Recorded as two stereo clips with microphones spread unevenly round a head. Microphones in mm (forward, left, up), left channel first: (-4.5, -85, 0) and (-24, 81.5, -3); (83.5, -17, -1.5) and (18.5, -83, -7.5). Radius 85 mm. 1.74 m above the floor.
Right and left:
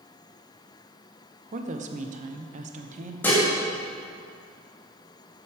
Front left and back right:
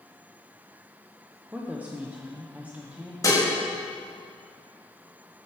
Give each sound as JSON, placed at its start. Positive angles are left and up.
{"t": 1.5, "sound": "a woman speaking", "azimuth_deg": 145, "distance_m": 0.9}
{"t": 3.2, "sound": "dishes clattering", "azimuth_deg": -5, "distance_m": 2.0}